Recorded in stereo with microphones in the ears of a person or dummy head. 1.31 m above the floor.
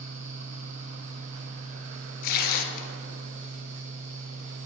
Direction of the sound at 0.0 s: 40° right (ahead or behind).